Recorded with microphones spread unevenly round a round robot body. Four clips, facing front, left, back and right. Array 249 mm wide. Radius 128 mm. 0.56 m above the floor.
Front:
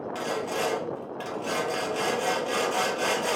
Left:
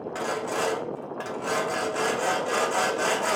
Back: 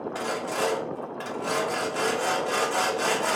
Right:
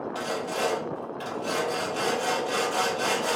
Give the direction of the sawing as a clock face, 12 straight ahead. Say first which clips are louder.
Left 3 dB, even; 10 o'clock.